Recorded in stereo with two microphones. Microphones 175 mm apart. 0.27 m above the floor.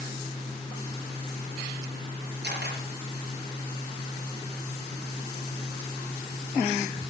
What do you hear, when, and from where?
2.4 s a camera shutter: 75° right (ahead or behind), 5.5 m